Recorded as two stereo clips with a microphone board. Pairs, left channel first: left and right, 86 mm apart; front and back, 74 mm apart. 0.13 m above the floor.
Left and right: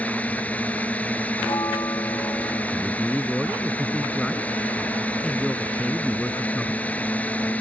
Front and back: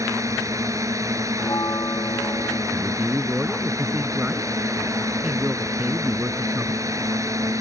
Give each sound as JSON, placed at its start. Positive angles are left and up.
{"t": 0.0, "sound": "a drone", "azimuth_deg": 160}
{"t": 1.4, "sound": "a bell", "azimuth_deg": 45}
{"t": 2.7, "sound": "a man speaking", "azimuth_deg": 165}